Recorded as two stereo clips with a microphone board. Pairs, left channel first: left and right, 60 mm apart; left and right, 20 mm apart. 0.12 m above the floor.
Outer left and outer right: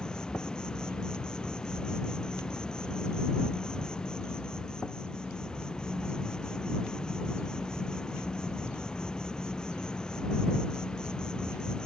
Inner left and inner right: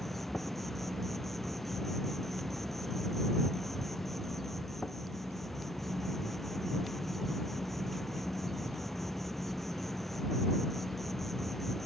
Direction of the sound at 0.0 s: 10° left (ahead or behind).